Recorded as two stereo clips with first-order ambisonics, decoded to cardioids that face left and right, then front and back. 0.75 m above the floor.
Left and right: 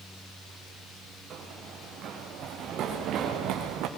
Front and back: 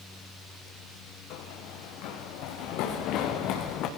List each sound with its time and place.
1.3 s running footsteps: 30° right, 5 m; by 3.9 s 45° right, 3.5 m